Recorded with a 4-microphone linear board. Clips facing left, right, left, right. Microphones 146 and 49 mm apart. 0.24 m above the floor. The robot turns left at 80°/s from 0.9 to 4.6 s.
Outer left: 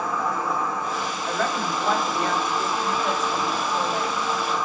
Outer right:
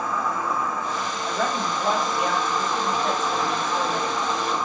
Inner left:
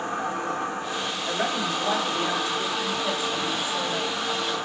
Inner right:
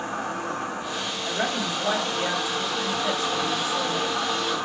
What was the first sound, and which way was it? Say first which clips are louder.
An insect: even, inner left 1 dB; 150° left.